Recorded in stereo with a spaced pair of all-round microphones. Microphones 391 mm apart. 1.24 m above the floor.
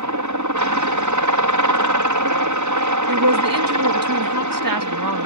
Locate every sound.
0.0 s a helicopter: 50° right (ahead or behind)
3.1 s a woman speaking: 55° right (ahead or behind)